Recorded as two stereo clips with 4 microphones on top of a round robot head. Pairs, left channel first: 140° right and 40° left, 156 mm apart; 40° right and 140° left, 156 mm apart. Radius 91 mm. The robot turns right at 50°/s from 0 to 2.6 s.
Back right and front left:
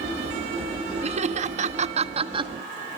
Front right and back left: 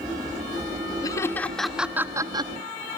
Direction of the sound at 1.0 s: 15° left.